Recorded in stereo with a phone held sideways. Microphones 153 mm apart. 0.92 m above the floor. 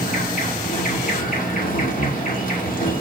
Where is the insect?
60° left (ahead or behind), 1.9 m.